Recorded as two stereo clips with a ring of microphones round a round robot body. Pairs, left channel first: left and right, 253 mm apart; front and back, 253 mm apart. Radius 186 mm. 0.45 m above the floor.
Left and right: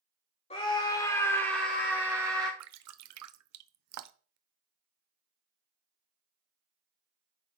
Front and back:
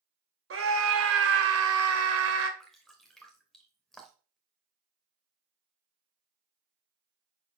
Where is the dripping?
90° right, 0.6 m.